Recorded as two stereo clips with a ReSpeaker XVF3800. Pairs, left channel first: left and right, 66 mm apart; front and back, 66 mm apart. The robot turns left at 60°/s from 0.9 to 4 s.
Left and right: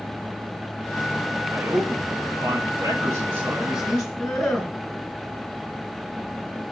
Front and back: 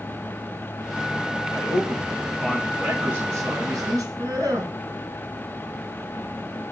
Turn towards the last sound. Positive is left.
turn(degrees=-175)